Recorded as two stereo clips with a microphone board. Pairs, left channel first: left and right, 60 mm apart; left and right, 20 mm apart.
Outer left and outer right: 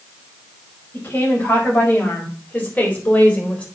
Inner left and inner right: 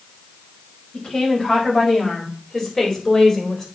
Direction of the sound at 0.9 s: 40° left (ahead or behind).